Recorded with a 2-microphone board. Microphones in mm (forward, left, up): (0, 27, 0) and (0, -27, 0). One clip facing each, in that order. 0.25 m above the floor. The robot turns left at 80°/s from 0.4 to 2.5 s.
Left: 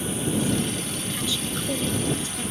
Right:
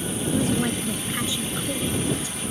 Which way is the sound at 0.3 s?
85° right.